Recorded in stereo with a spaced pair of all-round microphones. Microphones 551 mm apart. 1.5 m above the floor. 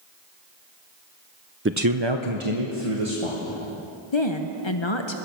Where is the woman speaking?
55° left (ahead or behind), 0.8 m.